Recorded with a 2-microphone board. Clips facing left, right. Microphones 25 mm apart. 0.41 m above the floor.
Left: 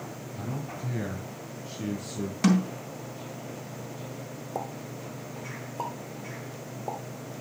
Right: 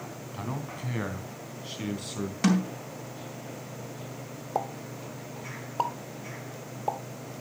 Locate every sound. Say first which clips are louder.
0.3 s a man speaking: right 1 dB; 70° right (ahead or behind), 3 m; by 2.3 s 65° right (ahead or behind), 3.5 m
2.4 s a snare drum: left 2 dB; 5° right (ahead or behind), 3 m
4.5 s a pop: right 4 dB; 45° right (ahead or behind), 0.9 m